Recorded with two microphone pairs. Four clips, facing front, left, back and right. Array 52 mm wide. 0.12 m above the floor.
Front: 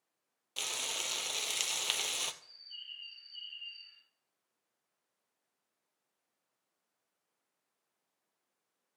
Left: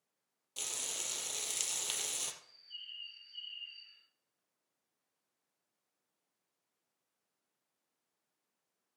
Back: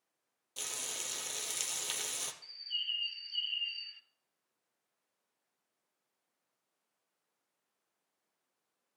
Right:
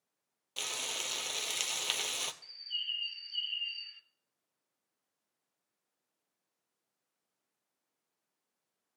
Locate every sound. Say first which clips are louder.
0.6 s frying: right 6 dB, front 5 dB; 40° right, 0.9 m
2.4 s a bird: right 12 dB, back 11 dB; 130° right, 0.9 m